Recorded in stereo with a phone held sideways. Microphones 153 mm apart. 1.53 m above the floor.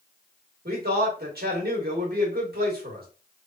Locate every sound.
0.7 s a man speaking: 75° right (ahead or behind), 1.2 m